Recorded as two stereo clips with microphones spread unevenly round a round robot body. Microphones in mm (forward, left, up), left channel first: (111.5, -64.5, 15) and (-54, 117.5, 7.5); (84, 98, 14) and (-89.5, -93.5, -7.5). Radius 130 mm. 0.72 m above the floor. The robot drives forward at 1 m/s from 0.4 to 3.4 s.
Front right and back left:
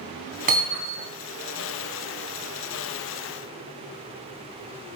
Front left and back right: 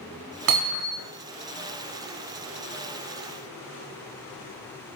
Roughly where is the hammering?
Behind.